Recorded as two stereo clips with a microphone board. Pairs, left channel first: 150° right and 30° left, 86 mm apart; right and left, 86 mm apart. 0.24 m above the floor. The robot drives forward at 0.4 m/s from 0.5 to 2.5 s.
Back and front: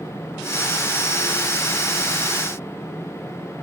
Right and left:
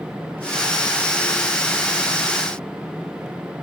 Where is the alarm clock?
No alarm clock in this recording.